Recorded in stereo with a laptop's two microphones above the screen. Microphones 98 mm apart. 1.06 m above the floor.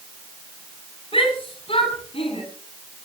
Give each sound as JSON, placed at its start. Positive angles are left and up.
{"t": 1.1, "sound": "a shout", "side_deg": 70, "distance_m": 9.5}